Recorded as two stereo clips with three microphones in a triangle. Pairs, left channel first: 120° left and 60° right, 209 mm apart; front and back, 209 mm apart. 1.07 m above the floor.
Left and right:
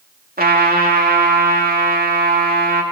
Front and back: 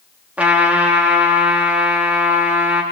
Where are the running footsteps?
I don't hear running footsteps.